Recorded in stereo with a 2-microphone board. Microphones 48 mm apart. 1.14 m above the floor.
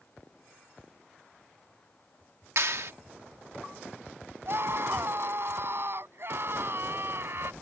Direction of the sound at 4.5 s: 50° right (ahead or behind).